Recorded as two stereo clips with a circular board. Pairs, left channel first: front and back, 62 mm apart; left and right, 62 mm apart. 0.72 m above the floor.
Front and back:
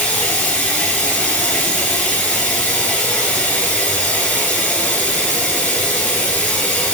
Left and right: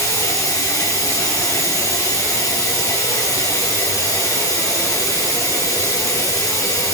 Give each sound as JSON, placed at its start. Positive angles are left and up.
{"t": 0.0, "sound": "running water", "azimuth_deg": 60, "distance_m": 4.5}